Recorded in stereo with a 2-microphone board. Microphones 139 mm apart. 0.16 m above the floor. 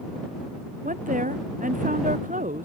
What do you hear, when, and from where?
0.8 s a woman speaking: 70° right (ahead or behind)